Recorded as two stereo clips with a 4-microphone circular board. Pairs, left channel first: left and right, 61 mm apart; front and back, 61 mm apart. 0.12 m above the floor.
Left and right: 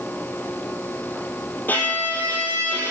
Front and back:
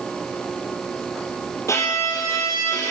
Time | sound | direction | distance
1.7 | a violin | 35° left | 3 m